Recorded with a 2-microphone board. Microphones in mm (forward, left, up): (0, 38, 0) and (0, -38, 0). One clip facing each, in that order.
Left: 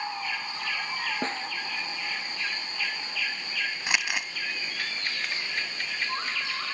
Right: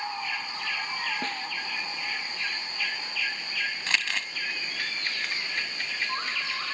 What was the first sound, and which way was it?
A snare drum, 30° left (ahead or behind).